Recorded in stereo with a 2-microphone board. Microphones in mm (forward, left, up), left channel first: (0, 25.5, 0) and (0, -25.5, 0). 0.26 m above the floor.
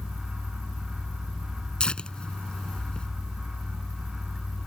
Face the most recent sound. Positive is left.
turn(degrees=20)  # may be behind; listen again after turning